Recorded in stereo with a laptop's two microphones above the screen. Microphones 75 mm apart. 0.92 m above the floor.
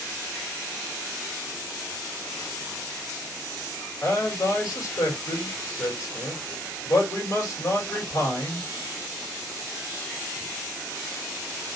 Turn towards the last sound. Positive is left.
turn(degrees=45)  # may be behind; listen again after turning